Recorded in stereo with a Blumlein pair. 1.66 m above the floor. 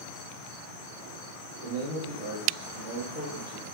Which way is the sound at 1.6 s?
50° left.